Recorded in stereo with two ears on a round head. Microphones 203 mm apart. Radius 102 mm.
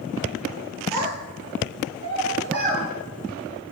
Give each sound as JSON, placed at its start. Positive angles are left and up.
{"t": 0.9, "sound": "a child speaking", "side_deg": -50, "distance_m": 1.4}